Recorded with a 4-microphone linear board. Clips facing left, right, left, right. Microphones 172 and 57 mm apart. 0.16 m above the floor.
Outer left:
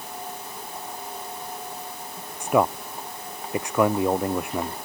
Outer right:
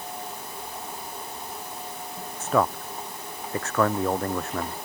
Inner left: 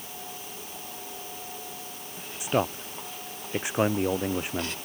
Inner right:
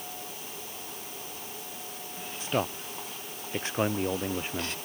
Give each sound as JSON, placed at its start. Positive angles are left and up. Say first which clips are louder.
{"t": 2.4, "sound": "a man speaking", "louder": "outer left 2 dB, inner left 4 dB", "side_deg": 15}